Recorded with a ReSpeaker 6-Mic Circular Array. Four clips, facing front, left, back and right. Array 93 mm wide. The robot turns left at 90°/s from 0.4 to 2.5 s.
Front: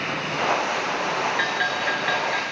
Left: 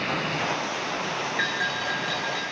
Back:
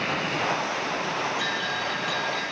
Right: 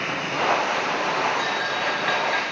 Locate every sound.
1.4 s a bell: 30° left, 3.5 m; by 2.4 s 65° right, 3.5 m